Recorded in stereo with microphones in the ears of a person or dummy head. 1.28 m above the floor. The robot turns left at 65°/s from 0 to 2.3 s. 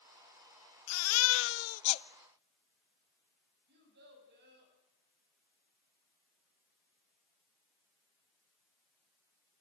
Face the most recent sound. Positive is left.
turn(degrees=-65)  # may be behind; listen again after turning